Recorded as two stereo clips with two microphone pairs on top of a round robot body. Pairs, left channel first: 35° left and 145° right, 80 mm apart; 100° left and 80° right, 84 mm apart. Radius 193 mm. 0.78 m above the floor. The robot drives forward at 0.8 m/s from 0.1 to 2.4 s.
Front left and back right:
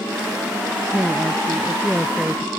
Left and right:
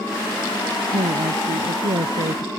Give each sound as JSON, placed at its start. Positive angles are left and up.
{"t": 0.9, "sound": "a woman speaking", "azimuth_deg": -60}